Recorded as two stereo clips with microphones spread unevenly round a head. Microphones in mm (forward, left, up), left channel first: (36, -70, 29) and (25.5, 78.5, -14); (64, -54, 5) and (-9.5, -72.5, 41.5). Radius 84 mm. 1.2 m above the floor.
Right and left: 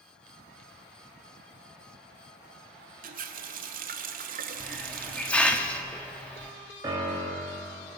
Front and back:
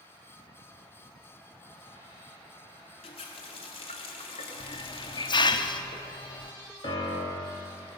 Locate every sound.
3.0 s a running tap: 60° left, 0.9 m
4.6 s a hiss: 20° right, 0.9 m
6.8 s a piano: 25° left, 2.5 m